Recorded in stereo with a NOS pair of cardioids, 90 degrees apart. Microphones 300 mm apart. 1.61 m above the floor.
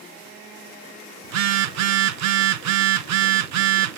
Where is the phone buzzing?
70° right, 0.5 m.